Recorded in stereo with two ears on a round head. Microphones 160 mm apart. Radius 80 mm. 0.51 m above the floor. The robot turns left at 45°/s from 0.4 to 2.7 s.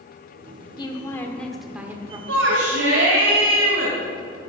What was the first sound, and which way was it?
A woman speaking, 35° left.